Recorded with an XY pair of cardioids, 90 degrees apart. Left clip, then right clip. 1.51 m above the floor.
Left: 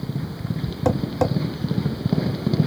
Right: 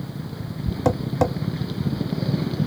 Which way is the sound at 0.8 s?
10° right.